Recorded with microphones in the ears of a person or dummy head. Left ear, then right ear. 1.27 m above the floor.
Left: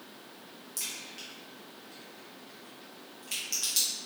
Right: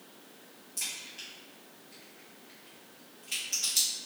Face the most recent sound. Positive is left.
turn(degrees=30)  # may be behind; listen again after turning